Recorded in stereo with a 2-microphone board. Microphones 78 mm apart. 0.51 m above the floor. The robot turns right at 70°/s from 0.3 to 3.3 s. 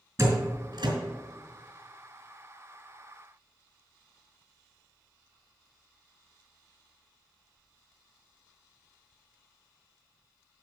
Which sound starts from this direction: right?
A door slam, at 0.2 s.